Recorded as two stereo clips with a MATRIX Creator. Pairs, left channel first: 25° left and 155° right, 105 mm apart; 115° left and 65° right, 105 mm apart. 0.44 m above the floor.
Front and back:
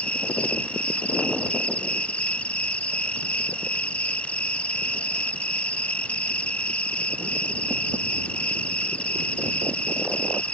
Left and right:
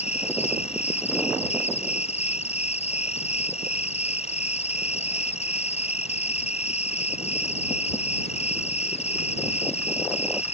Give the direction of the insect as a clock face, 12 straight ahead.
9 o'clock.